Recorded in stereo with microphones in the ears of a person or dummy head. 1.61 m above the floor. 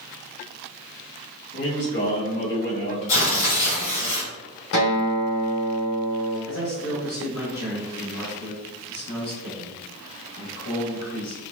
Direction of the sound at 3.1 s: 75° left (ahead or behind).